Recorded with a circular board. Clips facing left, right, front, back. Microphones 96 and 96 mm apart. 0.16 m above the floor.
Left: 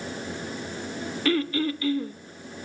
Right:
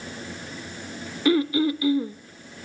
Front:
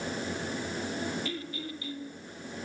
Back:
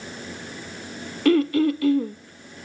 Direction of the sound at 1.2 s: 165° right.